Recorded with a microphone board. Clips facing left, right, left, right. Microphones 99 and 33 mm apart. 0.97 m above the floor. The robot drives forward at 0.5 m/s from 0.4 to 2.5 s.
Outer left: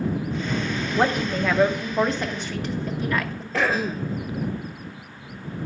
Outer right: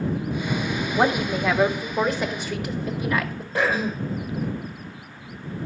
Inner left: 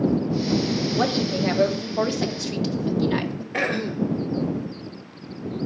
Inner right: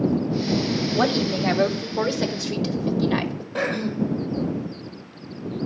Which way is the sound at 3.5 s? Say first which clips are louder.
Even, even; 75° left (ahead or behind).